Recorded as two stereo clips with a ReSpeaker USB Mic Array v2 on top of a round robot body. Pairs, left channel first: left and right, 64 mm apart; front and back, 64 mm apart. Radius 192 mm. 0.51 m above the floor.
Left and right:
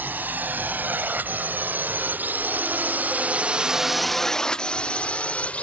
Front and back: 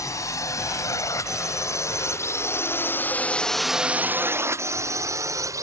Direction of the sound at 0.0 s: 30° right.